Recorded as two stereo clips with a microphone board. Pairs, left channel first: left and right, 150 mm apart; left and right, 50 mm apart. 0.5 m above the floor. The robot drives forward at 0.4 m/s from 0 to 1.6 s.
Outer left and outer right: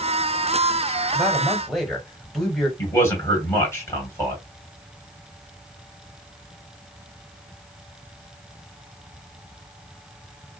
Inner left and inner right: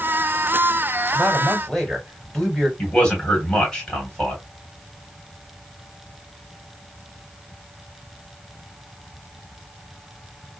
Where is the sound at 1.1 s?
Centre (ahead or behind), 3 m.